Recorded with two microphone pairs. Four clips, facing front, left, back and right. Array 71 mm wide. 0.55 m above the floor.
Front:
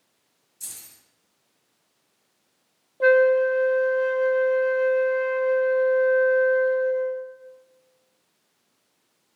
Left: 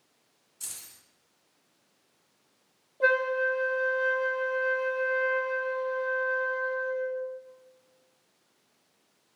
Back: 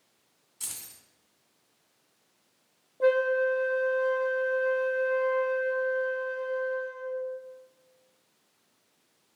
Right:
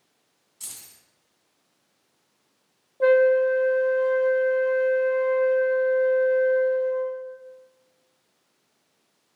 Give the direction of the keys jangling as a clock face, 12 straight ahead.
6 o'clock.